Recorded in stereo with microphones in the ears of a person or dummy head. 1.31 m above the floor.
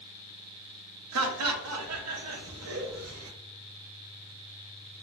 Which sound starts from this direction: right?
Laughter, at 1.1 s.